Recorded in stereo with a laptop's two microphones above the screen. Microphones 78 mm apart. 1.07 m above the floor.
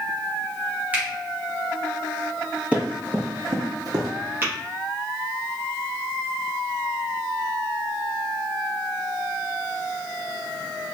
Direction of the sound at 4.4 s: 25° right (ahead or behind).